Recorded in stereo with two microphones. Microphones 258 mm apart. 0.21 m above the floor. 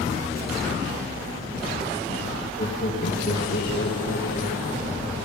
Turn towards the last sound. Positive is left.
turn(degrees=55)  # may be behind; listen again after turning